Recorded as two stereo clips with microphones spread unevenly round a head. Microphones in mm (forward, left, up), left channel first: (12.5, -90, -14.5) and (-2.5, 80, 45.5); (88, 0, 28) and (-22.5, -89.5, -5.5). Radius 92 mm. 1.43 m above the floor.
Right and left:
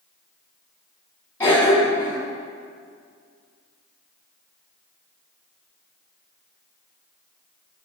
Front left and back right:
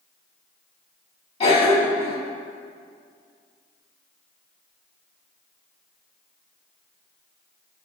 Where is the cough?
5° right, 3 m.